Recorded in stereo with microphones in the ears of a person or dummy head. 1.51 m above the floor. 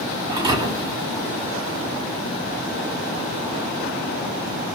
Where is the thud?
25° right (ahead or behind), 1.4 m.